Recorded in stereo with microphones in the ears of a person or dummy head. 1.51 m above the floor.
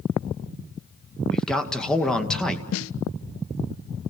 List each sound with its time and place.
1.3 s a man speaking: 10° left (ahead or behind), 1.9 m
2.7 s a snare drum: 75° left (ahead or behind), 0.5 m